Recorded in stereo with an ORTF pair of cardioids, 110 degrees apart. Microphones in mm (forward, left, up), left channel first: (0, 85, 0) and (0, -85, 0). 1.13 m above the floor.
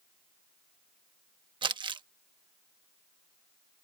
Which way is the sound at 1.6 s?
30° right.